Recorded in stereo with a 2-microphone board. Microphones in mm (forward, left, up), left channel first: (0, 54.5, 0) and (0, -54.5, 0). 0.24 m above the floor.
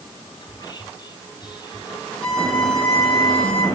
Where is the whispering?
45° left (ahead or behind), 1.5 m.